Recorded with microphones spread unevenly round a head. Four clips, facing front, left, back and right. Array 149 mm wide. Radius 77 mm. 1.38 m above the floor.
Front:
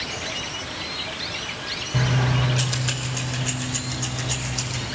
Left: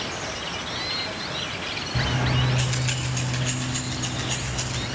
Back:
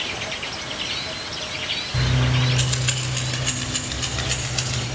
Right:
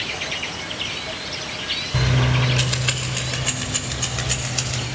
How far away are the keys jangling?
About 3.5 m.